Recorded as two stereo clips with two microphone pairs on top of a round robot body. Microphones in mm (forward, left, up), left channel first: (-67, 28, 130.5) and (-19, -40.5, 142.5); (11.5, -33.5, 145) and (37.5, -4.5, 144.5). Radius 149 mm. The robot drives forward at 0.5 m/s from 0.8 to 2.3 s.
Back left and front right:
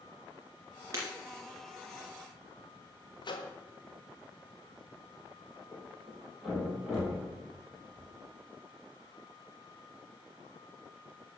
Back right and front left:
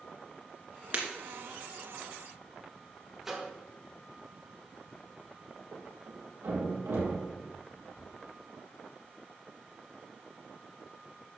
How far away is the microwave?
About 1.6 m.